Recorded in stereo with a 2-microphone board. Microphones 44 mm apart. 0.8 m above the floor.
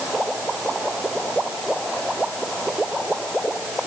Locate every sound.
Only background noise.